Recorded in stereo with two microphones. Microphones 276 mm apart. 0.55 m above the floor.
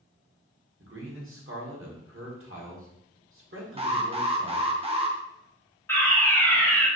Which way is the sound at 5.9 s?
10° left (ahead or behind).